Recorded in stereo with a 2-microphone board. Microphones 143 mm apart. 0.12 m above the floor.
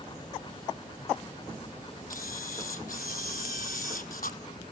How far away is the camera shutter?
About 0.6 m.